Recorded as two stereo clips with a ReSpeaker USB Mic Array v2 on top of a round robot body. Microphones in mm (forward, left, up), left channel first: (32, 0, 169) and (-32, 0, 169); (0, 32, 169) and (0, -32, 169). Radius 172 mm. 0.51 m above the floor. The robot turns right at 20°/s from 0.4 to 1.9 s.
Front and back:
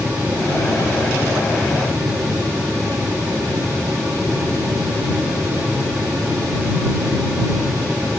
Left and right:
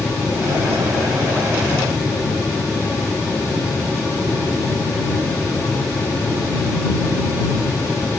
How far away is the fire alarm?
I don't hear a fire alarm.